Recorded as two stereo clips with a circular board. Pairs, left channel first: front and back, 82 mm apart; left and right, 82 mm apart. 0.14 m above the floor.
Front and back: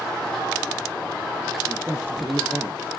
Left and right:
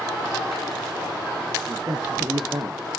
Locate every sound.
1.7 s a man speaking: 120° right, 1.8 m